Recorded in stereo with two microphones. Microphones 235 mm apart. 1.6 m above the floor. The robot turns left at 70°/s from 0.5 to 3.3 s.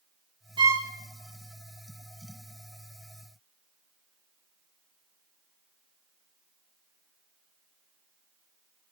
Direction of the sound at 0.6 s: 20° right (ahead or behind).